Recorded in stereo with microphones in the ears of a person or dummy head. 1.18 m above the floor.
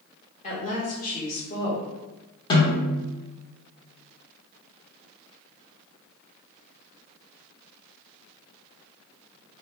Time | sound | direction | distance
0.4 | a woman speaking | 40° left (ahead or behind) | 1.5 m
2.5 | a snare drum | 25° left (ahead or behind) | 1.3 m